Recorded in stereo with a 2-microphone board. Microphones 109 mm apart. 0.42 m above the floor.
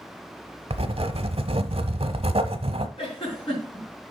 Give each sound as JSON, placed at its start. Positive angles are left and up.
{"t": 0.7, "sound": "writing", "side_deg": -65, "distance_m": 0.8}
{"t": 3.0, "sound": "a giggle", "side_deg": 60, "distance_m": 4.5}